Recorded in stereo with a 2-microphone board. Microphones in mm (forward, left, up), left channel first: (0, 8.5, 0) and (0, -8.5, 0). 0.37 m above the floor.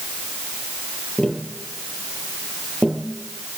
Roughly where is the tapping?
Left.